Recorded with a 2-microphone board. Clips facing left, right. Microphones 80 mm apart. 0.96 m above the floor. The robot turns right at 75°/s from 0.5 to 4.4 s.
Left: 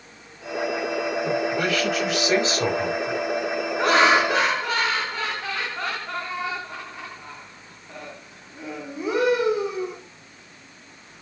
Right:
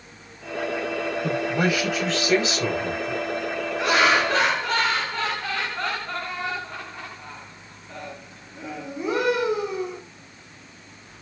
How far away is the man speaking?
About 4.5 m.